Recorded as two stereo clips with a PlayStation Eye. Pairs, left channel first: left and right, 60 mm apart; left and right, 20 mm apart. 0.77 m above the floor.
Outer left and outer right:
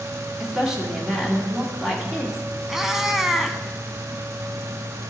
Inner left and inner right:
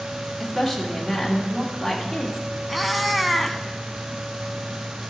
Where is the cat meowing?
5° right (ahead or behind), 0.7 m.